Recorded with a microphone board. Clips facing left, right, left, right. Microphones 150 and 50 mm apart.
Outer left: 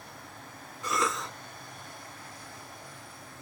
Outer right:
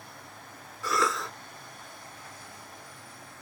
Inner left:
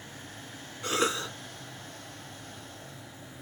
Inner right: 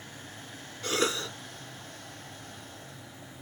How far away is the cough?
About 2 m.